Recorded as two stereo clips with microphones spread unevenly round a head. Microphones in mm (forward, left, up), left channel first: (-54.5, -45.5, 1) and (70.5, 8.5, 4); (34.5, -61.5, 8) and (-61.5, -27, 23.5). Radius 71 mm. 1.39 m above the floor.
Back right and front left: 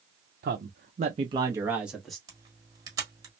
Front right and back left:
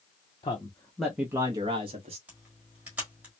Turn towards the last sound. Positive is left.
turn(degrees=90)